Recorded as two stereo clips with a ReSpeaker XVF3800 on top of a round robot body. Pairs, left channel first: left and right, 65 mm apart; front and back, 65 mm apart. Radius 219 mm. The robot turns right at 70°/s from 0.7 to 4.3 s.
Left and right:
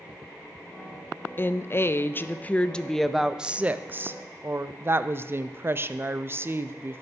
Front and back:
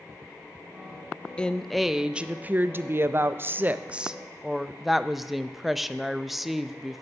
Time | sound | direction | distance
1.4 | a woman speaking | 60° left | 0.6 m